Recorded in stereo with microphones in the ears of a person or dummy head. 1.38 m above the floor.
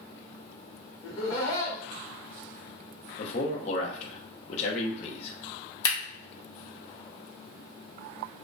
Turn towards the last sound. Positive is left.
turn(degrees=35)  # may be behind; listen again after turning